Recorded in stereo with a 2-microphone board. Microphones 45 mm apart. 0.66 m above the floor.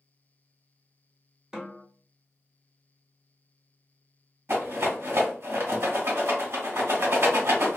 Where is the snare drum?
15° right (ahead or behind), 1.0 m.